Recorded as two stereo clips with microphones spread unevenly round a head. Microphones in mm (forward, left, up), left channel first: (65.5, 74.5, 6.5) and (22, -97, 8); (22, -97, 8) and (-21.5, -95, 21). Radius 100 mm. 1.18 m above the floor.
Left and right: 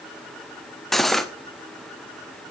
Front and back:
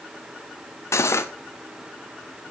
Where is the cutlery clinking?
15° right, 1.2 m.